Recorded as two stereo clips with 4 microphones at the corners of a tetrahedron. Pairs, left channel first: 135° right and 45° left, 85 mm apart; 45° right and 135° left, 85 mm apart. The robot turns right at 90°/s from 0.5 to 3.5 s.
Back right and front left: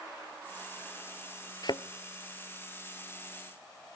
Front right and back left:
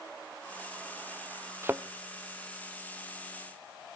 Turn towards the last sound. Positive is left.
turn(degrees=0)